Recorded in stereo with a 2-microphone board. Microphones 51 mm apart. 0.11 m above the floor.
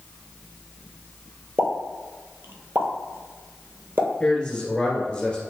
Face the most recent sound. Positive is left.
turn(degrees=20)  # may be behind; listen again after turning